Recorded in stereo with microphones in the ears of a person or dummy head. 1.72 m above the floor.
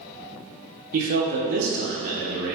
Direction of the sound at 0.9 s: 55° right (ahead or behind).